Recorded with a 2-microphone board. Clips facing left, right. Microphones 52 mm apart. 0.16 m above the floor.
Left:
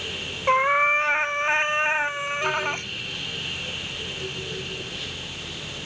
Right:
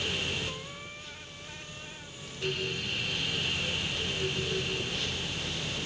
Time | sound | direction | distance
0.5 | a cat meowing | 90° left | ?